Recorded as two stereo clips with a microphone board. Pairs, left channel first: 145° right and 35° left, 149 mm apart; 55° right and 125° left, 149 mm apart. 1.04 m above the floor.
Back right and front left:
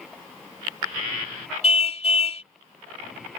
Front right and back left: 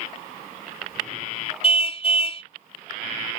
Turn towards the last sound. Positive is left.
turn(degrees=-100)